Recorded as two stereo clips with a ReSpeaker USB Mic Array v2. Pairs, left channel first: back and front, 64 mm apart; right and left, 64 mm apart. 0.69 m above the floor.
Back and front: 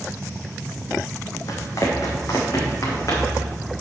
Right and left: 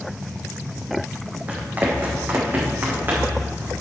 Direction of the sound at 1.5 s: 155° left.